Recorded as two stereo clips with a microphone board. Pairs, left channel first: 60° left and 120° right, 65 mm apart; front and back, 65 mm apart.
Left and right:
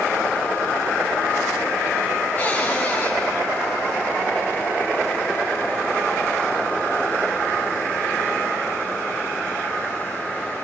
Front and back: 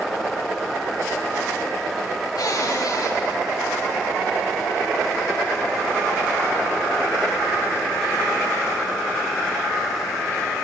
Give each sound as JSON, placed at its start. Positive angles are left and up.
{"t": 2.4, "sound": "a cupboard door", "azimuth_deg": -5, "distance_m": 9.0}